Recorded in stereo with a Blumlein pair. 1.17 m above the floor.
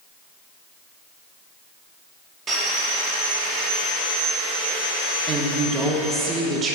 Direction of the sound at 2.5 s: 25° right.